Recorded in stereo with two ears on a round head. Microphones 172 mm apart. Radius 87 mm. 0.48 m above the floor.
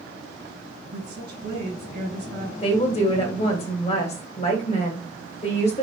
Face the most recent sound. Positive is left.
turn(degrees=35)  # may be behind; listen again after turning